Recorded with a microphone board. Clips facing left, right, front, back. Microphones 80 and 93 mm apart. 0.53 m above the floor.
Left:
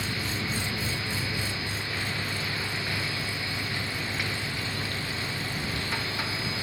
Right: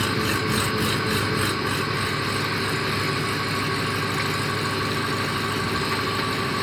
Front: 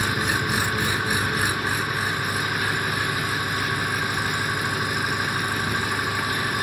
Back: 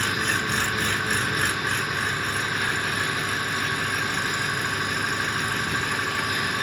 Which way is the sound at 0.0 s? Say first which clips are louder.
Right 9 dB, front 1 dB; 80° right.